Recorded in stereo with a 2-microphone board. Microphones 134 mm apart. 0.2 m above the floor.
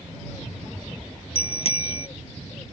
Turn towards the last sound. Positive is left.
turn(degrees=50)  # may be behind; listen again after turning